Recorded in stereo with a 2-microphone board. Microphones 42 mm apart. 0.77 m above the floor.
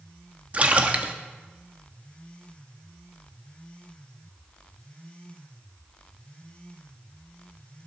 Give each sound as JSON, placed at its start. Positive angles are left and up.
{"t": 0.5, "sound": "a splash", "side_deg": -35, "distance_m": 1.0}